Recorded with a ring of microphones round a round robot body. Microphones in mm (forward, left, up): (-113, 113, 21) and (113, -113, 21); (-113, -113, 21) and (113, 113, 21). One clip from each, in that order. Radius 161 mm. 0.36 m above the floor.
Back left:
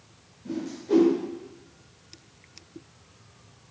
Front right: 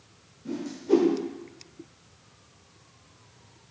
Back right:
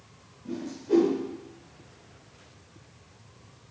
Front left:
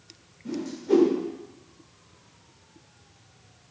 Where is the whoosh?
15° left, 1.3 m.